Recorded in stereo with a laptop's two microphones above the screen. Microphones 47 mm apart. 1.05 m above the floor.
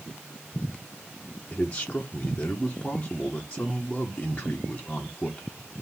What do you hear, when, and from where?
1.5 s a man speaking: 25° left (ahead or behind), 0.8 m